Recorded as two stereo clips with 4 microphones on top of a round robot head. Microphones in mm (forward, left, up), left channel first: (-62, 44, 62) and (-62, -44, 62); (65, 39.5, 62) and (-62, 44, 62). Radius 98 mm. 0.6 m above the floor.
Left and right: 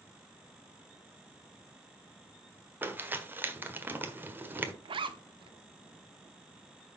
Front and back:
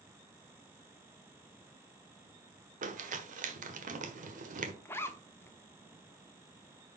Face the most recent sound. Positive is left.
turn(degrees=-75)